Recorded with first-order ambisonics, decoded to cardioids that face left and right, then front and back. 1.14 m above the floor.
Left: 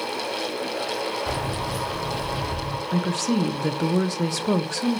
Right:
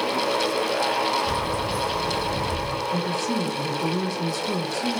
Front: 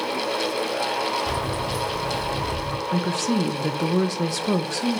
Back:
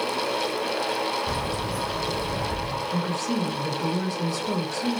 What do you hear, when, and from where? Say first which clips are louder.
1.3 s keys jangling: right 2 dB, front 2 dB; 45° left, 2.5 m; by 2.8 s 40° left, 4 m
2.9 s a woman speaking: left 3 dB, front 3 dB; 50° left, 0.5 m